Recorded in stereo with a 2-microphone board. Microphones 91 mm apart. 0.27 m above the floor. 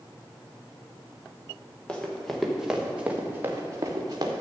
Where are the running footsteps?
10° left (ahead or behind), 2 m; by 4.3 s 45° right (ahead or behind), 1.9 m.